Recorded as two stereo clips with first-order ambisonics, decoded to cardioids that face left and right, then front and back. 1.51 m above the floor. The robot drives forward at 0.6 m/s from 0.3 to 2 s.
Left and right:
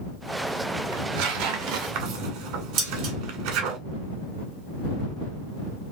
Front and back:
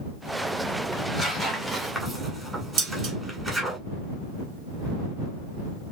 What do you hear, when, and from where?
0.9 s tearing paper: 80° right, 1.7 m; by 3.8 s 105° right, 1.8 m
2.8 s dishes clattering: 140° right, 2 m